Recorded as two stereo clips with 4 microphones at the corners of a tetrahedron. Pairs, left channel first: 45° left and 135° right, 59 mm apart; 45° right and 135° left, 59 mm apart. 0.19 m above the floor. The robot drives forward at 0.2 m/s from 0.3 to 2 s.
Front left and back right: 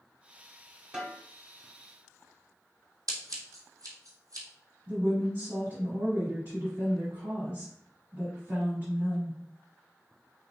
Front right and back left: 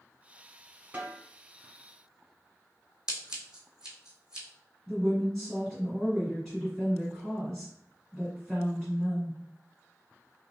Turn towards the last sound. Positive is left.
turn(degrees=-130)